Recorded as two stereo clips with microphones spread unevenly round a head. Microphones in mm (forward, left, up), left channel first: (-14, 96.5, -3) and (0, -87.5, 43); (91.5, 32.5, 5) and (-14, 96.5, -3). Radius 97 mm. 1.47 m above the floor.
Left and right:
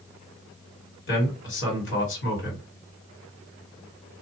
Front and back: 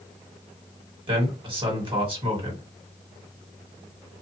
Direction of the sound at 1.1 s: 105° left.